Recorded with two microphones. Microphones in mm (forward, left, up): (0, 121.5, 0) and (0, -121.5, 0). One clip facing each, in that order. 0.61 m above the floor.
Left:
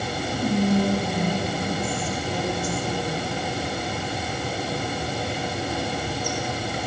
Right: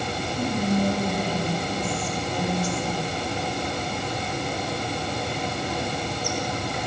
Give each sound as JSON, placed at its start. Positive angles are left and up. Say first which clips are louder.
{"t": 0.3, "sound": "whispering", "louder": "left 3 dB", "side_deg": 60, "distance_m": 2.0}